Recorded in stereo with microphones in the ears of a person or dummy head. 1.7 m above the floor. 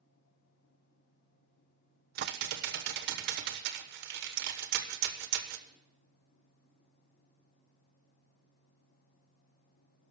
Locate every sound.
2.1 s typing on a keyboard: 55° right (ahead or behind), 1.0 m